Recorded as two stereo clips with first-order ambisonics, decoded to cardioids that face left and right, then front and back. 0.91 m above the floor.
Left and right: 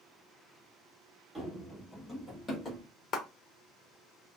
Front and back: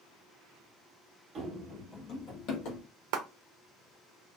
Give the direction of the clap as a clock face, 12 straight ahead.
7 o'clock.